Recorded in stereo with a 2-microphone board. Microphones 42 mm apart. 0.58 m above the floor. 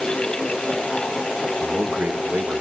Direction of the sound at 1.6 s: 45° right (ahead or behind).